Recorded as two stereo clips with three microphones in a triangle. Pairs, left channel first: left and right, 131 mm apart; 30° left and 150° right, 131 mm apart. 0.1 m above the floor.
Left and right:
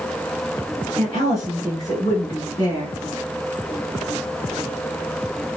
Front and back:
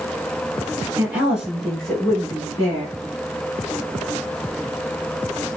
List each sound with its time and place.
1.0 s a woman speaking: 150° left, 1.5 m; by 3.0 s 50° left, 1.5 m